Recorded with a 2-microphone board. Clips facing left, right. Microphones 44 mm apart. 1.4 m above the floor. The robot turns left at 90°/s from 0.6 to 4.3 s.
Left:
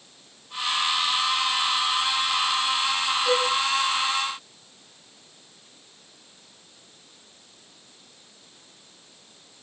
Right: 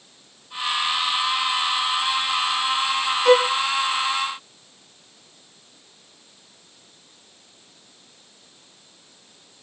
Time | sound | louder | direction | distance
3.2 | a violin | right 9 dB | 55° right (ahead or behind) | 1.2 m